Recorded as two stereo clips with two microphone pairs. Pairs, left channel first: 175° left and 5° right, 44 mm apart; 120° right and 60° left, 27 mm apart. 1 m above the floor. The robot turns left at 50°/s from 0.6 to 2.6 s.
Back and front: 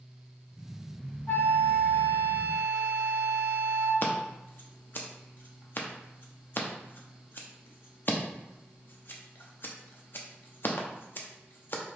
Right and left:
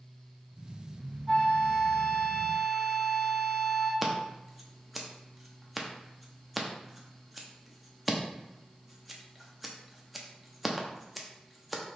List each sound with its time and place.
1.3 s a flute: 175° left, 1.7 m; by 3.9 s 105° left, 1.7 m
4.0 s scissors: 145° left, 0.5 m